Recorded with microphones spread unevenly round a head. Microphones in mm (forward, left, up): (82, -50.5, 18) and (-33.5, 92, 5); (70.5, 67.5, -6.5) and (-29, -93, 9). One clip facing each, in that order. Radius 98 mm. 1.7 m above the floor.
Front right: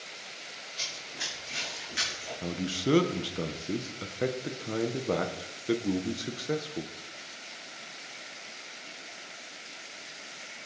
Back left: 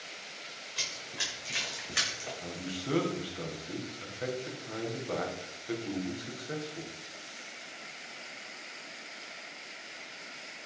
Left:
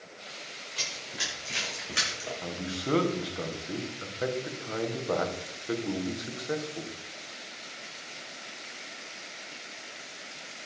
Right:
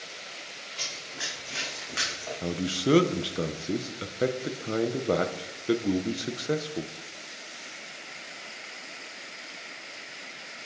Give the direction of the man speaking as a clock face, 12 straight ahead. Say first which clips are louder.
Front right 9 dB, right 9 dB; 3 o'clock.